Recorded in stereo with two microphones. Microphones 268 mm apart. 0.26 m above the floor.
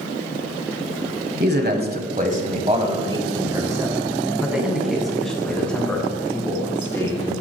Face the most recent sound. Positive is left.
turn(degrees=10)  # may be behind; listen again after turning